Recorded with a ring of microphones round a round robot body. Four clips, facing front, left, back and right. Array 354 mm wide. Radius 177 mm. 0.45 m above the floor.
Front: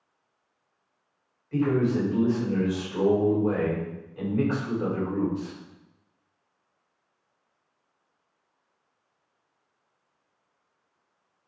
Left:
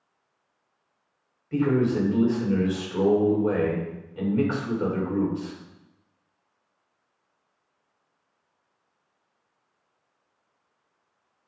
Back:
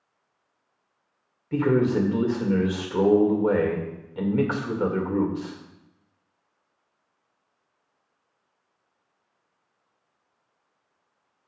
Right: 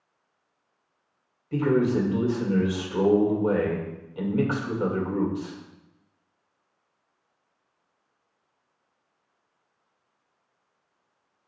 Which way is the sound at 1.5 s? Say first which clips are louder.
Even, back 3 dB; 170° right.